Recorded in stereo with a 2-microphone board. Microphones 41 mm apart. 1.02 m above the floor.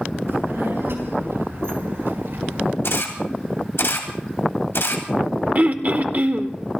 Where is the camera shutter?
80° left, 2.5 m.